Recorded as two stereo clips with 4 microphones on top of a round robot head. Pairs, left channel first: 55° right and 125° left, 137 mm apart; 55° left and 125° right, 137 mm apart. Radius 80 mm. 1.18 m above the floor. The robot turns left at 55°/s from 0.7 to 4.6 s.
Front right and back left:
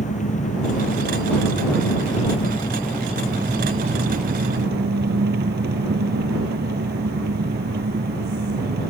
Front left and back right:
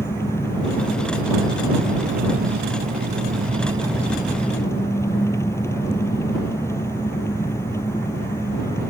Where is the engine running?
20° right; by 8.9 s 125° left.